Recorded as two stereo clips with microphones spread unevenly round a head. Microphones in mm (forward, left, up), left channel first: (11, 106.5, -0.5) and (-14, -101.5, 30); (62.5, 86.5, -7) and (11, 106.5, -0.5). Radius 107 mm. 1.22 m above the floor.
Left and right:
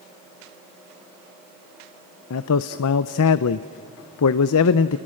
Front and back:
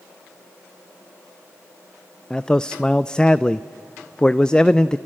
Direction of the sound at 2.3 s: 60° left.